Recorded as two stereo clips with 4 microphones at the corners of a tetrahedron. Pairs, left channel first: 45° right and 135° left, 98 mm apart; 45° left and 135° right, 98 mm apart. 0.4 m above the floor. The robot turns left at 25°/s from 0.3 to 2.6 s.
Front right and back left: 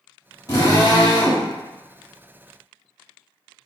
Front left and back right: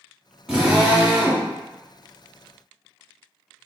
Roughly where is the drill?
Ahead right.